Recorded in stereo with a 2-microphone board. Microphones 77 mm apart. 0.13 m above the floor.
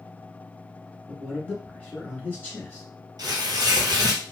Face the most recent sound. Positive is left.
turn(degrees=-55)  # may be behind; listen again after turning